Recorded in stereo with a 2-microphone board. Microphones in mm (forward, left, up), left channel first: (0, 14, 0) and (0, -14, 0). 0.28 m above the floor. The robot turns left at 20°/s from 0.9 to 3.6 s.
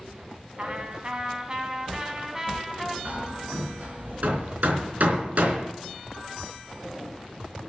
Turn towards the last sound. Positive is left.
turn(degrees=-70)  # may be behind; listen again after turning